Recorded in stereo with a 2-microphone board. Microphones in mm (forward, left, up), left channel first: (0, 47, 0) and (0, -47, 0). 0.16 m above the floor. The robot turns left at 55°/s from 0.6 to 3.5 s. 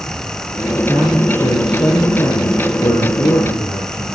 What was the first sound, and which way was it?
A man speaking, 170° left.